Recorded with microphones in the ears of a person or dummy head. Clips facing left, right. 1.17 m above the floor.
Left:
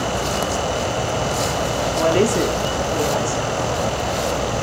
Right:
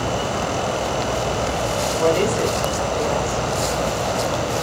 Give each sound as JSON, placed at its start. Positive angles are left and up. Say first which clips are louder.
{"t": 2.0, "sound": "a woman speaking", "louder": "left 2 dB", "side_deg": 40, "distance_m": 3.0}